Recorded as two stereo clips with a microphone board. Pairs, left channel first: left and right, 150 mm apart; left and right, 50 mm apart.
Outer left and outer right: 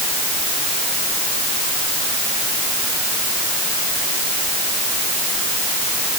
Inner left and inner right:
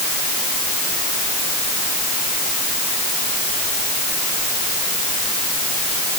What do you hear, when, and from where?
Only background noise.